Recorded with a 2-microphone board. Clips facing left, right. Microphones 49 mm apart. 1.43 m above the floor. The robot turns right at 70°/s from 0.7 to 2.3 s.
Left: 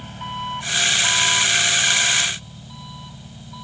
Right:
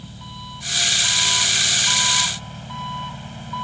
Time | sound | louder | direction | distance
0.0 | an engine running | left 8 dB | 125° left | ?